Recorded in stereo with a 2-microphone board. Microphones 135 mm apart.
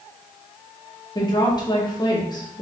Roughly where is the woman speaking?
Left.